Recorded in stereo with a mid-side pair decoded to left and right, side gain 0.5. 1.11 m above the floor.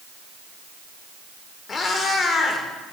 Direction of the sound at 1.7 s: 45° left.